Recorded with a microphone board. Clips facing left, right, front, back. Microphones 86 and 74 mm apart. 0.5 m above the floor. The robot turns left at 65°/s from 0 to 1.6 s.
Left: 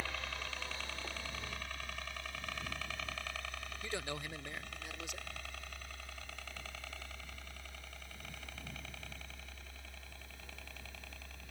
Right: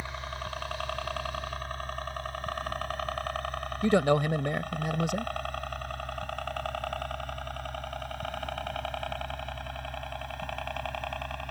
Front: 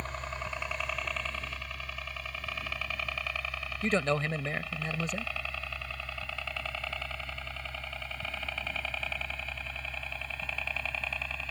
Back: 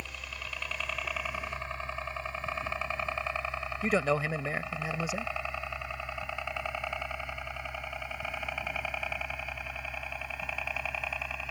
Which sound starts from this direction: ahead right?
A helicopter, at 0.0 s.